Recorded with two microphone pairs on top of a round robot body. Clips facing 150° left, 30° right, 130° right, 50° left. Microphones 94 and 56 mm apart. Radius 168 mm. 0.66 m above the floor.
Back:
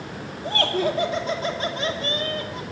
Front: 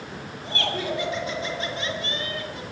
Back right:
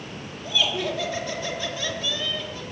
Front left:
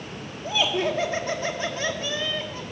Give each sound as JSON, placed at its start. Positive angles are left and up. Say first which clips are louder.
{"t": 0.4, "sound": "laughter", "louder": "back 5 dB, front left 2 dB", "azimuth_deg": 100, "distance_m": 2.5}